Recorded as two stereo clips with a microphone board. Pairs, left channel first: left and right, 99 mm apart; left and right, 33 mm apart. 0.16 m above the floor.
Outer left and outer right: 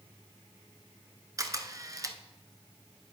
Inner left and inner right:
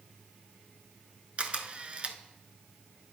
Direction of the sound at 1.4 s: 35° right (ahead or behind).